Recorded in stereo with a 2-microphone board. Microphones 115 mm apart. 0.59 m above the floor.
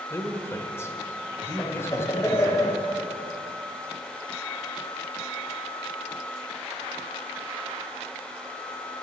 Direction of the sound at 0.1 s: 25° left (ahead or behind).